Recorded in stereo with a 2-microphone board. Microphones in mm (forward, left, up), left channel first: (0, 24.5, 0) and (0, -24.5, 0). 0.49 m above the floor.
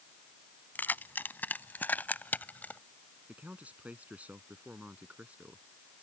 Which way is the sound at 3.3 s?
30° right (ahead or behind).